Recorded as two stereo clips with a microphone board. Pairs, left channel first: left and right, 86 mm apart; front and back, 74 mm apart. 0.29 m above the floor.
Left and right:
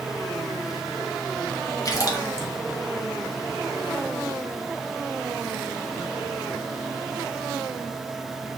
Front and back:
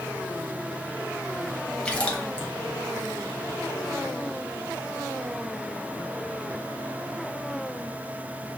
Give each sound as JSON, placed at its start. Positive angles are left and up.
{"t": 1.9, "sound": "a splash", "azimuth_deg": 70, "distance_m": 0.9}